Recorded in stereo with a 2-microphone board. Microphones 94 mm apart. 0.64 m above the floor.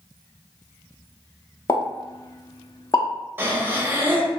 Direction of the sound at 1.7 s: 35° left (ahead or behind).